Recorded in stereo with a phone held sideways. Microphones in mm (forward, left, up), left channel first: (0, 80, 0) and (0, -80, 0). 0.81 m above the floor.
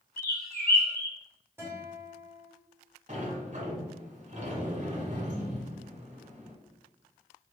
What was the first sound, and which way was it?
A bird, 70° left (ahead or behind).